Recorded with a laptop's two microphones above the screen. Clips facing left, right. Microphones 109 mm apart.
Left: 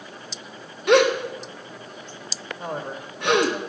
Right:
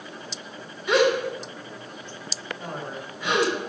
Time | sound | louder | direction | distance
0.9 | a gasp | left 3 dB | 75° left (ahead or behind) | 1.2 m
2.6 | a man speaking | left 5 dB | 50° left (ahead or behind) | 2.5 m